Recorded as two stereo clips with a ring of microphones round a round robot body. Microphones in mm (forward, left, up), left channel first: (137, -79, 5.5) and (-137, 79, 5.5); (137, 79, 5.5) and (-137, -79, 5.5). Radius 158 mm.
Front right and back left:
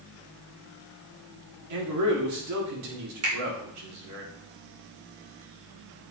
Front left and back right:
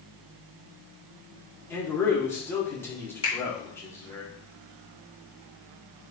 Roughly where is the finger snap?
Left.